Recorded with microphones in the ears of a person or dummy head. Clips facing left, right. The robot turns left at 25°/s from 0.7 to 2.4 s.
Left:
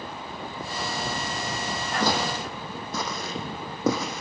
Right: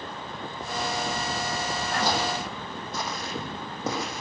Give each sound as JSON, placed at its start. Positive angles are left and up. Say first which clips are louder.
{"t": 2.0, "sound": "footsteps", "louder": "left 2 dB", "side_deg": 70, "distance_m": 4.0}